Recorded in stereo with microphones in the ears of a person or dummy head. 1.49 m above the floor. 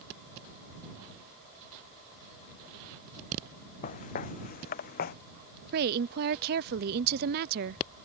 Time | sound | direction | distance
3.8 | footsteps | 45° left (ahead or behind) | ?
5.7 | a woman speaking | 55° right (ahead or behind) | ?